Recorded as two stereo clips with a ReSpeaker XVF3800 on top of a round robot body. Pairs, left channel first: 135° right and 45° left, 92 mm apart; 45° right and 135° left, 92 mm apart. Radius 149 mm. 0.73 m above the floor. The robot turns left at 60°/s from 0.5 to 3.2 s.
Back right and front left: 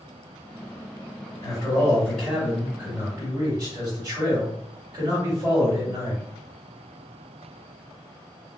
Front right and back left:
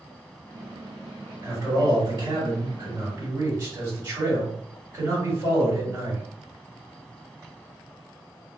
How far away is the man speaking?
About 1.9 m.